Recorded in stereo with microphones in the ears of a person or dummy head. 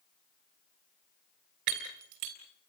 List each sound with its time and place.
1.7 s breaking glass: 50° right (ahead or behind), 3 m